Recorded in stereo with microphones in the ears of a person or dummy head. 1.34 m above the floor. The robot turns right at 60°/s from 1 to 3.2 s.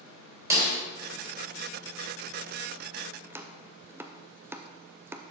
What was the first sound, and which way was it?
A snare drum, 15° right (ahead or behind).